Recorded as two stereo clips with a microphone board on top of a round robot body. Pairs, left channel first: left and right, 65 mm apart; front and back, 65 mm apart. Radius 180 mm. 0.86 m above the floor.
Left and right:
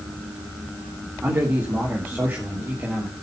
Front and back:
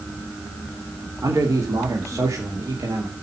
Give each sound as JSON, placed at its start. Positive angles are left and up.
{"t": 1.2, "sound": "a man speaking", "azimuth_deg": -145, "distance_m": 3.0}